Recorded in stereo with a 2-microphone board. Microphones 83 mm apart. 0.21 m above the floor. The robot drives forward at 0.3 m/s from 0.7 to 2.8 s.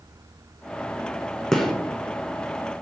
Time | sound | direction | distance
1.5 | a gunshot | 5° left (ahead or behind) | 0.7 m